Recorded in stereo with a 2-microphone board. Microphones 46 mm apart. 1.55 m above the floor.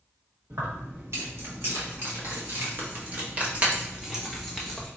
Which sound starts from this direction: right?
Keys jangling, at 0.5 s.